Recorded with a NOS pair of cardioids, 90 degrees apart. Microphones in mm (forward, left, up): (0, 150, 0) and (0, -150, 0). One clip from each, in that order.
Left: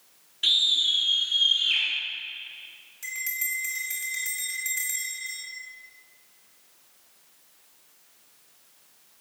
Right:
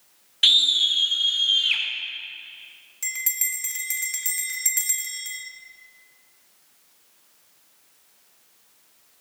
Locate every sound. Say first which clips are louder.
0.4 s a scream: right 4 dB; 60° right, 1.6 m; by 1.8 s 45° right, 3.5 m
3.0 s a bell: right 2 dB; 60° right, 1.6 m